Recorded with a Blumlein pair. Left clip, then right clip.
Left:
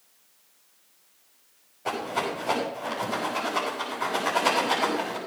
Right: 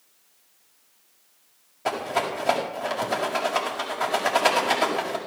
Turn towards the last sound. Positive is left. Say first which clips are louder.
# right 3 dB
turn(degrees=-70)